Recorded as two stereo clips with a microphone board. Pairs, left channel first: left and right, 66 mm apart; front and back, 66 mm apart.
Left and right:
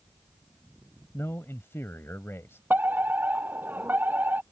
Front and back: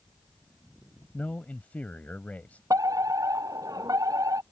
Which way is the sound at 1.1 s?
55° left.